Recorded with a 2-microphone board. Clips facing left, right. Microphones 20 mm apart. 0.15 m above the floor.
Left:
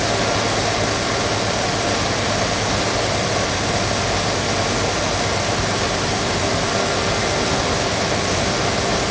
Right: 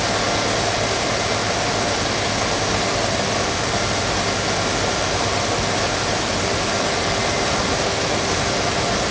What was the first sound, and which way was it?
Only background noise.